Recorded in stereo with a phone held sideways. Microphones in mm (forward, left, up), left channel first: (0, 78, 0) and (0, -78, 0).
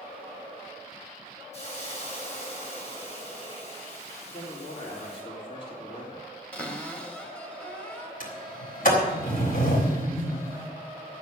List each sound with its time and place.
1.5 s a hiss: 45° left (ahead or behind), 6.5 m
4.2 s a man speaking: 50° left (ahead or behind), 3.5 m
6.5 s a cupboard door: 10° left (ahead or behind), 2.0 m
8.2 s a sliding door: 65° left (ahead or behind), 3.5 m